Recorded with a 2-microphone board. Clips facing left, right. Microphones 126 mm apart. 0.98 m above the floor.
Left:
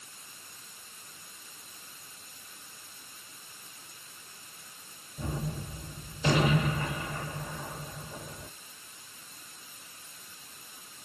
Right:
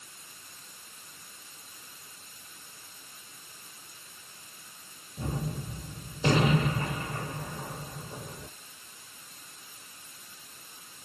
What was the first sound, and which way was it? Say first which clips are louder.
A gunshot: right 1 dB; 35° right (ahead or behind).